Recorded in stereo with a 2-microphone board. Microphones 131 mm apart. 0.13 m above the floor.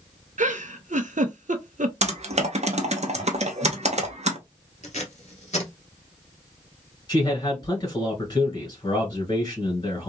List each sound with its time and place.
0.4 s a giggle: 65° right (ahead or behind), 0.6 m
2.0 s typing on a keyboard: 55° right (ahead or behind), 0.7 m
4.8 s tape being pulled: 55° left (ahead or behind), 1.2 m
7.1 s a man speaking: 30° left (ahead or behind), 2 m